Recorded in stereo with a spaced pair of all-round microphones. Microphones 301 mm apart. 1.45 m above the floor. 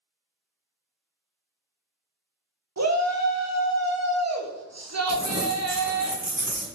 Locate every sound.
2.8 s a shout: 60° right (ahead or behind), 0.8 m
5.1 s crumpling: 75° right (ahead or behind), 1.3 m